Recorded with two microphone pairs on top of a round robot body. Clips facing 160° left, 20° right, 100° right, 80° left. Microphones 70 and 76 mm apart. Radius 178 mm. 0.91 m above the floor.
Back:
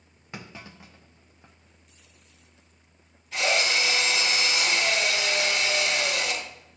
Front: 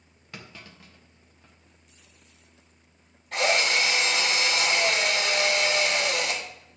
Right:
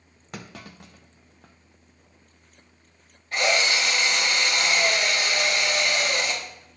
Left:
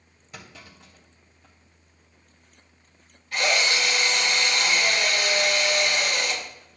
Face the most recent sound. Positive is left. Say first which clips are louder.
# front 1 dB, right 1 dB
turn(degrees=-45)